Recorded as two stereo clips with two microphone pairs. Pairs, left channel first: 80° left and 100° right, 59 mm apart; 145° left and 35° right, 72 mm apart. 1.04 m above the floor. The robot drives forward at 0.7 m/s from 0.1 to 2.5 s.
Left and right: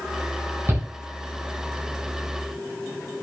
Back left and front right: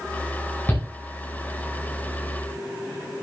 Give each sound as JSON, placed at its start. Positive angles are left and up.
{"t": 0.7, "sound": "a shout", "azimuth_deg": -150, "distance_m": 2.5}